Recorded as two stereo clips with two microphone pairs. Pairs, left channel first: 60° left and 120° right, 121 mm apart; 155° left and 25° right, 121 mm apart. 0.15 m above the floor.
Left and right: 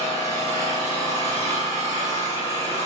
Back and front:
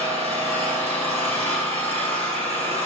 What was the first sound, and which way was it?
An engine running, 5° right.